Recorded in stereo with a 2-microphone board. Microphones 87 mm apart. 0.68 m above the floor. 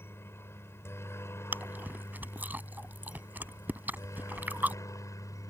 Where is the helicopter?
30° left (ahead or behind); by 5.5 s 40° left (ahead or behind).